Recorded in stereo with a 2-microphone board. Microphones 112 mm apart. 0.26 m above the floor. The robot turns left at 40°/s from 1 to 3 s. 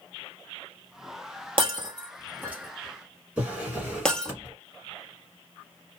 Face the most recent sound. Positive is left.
turn(degrees=-10)  # may be behind; listen again after turning